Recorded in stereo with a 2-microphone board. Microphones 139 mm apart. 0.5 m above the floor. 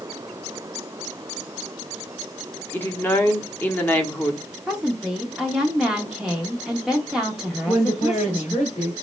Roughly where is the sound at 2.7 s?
Centre.